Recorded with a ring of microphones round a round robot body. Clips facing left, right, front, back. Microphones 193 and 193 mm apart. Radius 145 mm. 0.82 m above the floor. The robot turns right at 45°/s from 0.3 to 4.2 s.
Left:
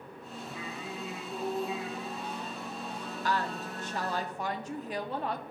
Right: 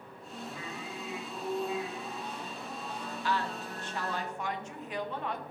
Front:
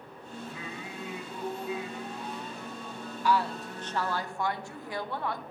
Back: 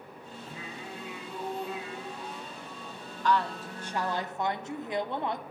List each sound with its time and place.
0.5 s singing: 115° left, 1.2 m; by 4.2 s 75° right, 1.2 m
3.2 s a woman speaking: 75° left, 0.7 m; by 5.4 s 120° left, 0.7 m